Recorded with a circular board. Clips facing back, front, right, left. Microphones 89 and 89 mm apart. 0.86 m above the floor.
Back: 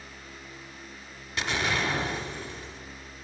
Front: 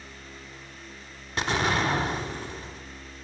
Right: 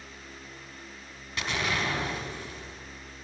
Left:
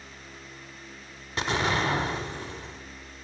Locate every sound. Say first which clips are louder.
1.4 s an explosion: front 3 dB, left 4 dB; 40° left, 1.1 m